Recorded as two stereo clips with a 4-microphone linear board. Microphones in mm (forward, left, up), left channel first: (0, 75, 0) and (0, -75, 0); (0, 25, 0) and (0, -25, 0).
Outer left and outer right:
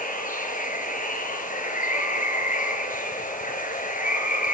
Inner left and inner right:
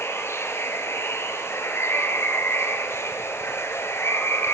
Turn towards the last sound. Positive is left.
turn(degrees=60)  # may be behind; listen again after turning